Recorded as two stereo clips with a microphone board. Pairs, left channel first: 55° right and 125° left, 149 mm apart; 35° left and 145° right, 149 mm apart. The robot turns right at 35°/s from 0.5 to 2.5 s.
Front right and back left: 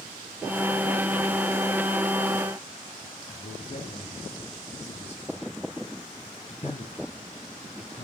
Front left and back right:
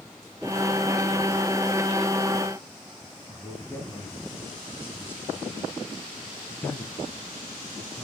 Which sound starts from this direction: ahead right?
A man speaking, at 3.3 s.